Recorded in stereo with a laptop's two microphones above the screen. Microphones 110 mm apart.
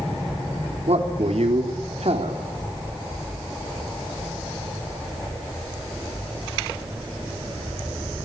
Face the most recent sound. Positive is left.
turn(degrees=-70)  # may be behind; listen again after turning